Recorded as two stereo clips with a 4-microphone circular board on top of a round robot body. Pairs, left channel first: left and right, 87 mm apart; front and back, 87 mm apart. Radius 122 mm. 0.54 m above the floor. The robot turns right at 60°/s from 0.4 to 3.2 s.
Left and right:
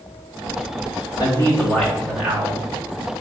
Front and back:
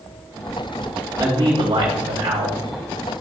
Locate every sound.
1.2 s a man speaking: 130° left, 2.5 m; by 2.6 s 140° right, 2.5 m